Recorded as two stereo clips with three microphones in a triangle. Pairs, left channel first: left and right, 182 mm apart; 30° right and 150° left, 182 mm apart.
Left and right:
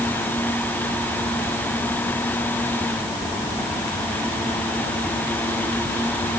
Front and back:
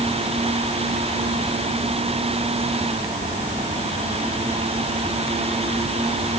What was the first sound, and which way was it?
Only background noise.